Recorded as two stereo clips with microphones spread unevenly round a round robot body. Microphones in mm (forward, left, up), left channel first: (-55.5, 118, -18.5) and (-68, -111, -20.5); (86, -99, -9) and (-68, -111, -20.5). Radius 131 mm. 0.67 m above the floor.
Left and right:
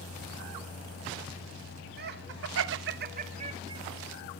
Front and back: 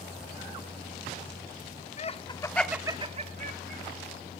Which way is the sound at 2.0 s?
40° right.